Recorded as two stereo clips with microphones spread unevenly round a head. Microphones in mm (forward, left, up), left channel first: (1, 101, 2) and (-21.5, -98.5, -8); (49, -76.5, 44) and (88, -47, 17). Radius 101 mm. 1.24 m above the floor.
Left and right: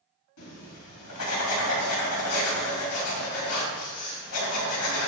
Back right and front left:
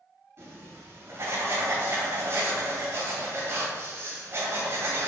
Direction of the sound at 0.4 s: 75° left.